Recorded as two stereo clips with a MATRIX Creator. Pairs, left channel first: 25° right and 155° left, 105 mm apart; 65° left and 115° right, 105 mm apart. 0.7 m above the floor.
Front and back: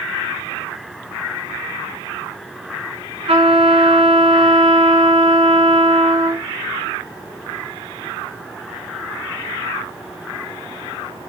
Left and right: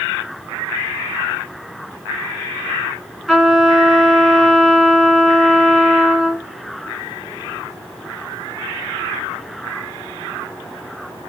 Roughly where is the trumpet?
Behind.